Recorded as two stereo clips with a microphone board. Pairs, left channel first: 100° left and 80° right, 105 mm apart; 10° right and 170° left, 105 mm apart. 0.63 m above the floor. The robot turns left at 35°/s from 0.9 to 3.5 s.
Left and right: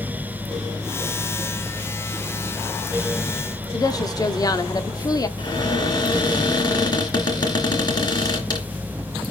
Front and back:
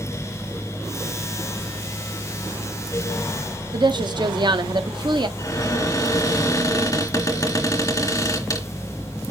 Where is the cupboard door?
50° left, 3 m.